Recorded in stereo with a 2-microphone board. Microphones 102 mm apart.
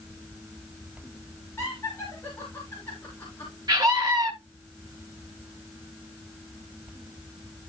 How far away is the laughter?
About 4 m.